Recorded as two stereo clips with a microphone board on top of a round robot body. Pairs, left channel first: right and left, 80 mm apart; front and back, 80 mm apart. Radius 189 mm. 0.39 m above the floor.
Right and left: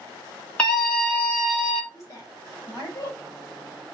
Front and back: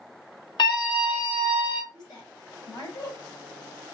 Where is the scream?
15° right, 3.5 m; by 1.8 s 5° right, 2.5 m.